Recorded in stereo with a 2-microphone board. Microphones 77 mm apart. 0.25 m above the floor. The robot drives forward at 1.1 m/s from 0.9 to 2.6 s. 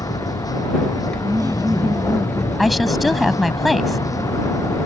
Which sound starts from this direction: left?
A vehicle, at 0.0 s.